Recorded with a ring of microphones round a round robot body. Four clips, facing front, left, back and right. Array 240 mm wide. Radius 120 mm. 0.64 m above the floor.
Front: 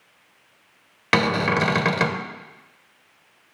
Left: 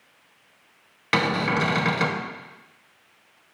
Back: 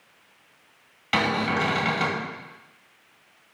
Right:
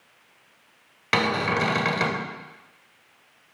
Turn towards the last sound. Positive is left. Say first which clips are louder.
# even, front 3 dB
turn(degrees=0)